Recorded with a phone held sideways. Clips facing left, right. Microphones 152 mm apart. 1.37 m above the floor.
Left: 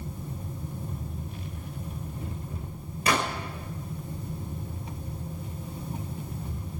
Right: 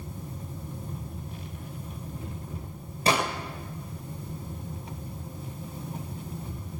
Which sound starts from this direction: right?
A gunshot, at 3.1 s.